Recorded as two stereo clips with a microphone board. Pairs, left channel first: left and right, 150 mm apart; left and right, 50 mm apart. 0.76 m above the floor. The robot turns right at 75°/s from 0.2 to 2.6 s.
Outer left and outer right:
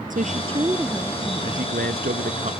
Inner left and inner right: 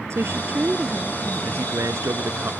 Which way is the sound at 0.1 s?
60° right.